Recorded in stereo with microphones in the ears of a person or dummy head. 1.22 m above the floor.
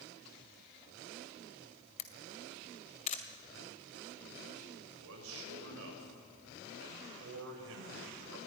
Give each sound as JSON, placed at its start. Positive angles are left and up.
{"t": 2.0, "sound": "a camera shutter", "side_deg": 40, "distance_m": 1.8}
{"t": 4.8, "sound": "a man speaking", "side_deg": -80, "distance_m": 6.5}